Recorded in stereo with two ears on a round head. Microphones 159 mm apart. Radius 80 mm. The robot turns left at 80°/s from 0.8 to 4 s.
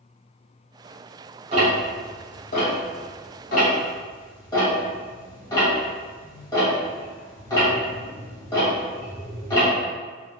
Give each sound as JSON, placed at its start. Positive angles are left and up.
{"t": 1.5, "sound": "ticking", "side_deg": -40, "distance_m": 1.2}